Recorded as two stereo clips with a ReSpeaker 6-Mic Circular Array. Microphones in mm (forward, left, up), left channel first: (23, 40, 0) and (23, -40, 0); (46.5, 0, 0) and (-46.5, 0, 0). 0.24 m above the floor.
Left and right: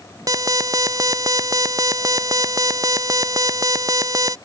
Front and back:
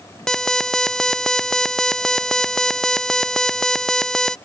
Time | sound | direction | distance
0.3 | an alarm | 85° right | ?